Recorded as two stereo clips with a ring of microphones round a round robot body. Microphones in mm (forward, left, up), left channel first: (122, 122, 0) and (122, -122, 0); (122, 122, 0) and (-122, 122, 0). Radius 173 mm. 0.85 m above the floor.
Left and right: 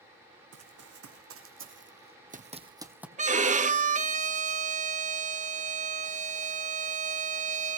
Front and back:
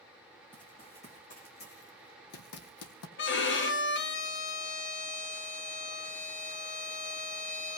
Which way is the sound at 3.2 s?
35° right.